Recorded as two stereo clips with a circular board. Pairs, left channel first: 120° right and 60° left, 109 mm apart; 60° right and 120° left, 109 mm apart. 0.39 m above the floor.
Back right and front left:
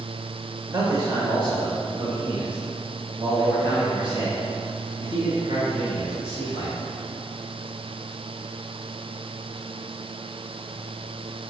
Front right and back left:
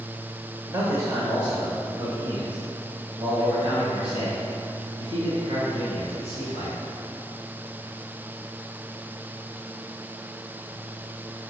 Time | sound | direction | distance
0.7 | a man speaking | 85° left | 1.2 m